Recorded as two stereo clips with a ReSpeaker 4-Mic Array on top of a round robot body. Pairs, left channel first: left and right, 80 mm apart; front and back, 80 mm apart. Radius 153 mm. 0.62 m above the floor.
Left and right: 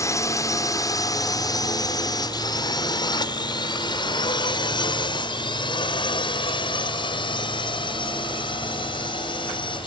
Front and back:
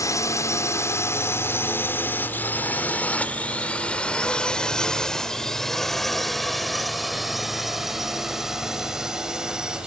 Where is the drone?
45° left; by 9.9 s 100° left.